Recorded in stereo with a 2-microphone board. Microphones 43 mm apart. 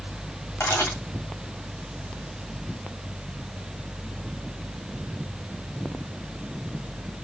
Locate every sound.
0.6 s a camera shutter: 70° left (ahead or behind), 3 m